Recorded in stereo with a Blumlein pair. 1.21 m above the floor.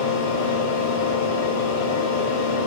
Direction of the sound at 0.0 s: 55° left.